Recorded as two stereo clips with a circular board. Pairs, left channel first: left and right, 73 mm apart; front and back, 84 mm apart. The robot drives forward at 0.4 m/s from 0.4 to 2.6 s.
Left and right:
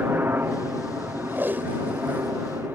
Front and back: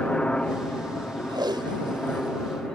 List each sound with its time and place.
0.0 s a helicopter: 70° right; by 2.8 s 75° right
1.3 s tape being pulled: 150° right; by 2.4 s 155° right